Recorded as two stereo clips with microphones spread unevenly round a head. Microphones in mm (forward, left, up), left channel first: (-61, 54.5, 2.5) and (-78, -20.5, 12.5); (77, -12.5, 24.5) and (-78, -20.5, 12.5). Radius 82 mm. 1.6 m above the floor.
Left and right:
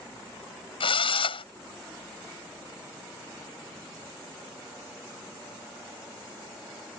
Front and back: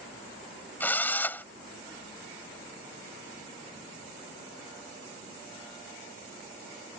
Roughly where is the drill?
Left.